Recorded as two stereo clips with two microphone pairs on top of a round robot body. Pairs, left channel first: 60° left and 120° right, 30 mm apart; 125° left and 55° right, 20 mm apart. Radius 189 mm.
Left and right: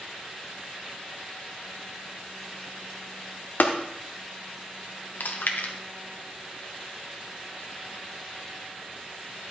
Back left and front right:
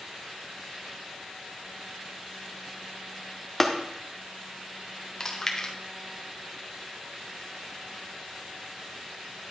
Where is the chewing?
55° left, 0.9 m.